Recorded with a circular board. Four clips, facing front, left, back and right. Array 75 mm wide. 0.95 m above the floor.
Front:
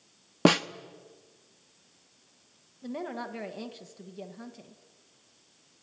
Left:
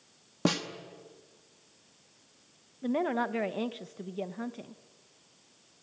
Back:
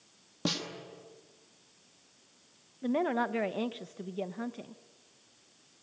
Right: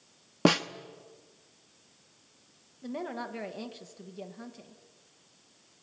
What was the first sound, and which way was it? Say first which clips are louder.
A snare drum: right 5 dB, front 13 dB; 25° right.